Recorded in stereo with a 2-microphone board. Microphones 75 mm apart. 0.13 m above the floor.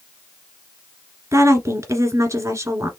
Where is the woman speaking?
40° right (ahead or behind), 1.7 m.